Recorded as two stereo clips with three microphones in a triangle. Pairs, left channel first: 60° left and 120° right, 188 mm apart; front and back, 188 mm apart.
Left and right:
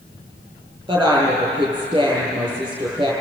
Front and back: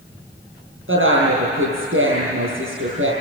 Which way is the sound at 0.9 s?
170° left.